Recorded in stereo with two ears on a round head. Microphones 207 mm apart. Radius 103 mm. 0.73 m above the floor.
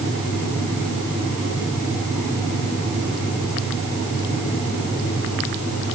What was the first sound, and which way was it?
Only background noise.